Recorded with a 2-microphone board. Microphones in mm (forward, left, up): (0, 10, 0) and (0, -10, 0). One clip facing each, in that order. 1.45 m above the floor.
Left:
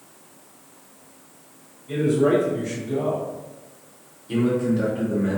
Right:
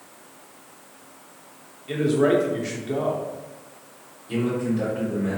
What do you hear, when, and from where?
1.9 s a man speaking: 55° right (ahead or behind), 0.7 m
4.3 s a man speaking: 20° left (ahead or behind), 1.4 m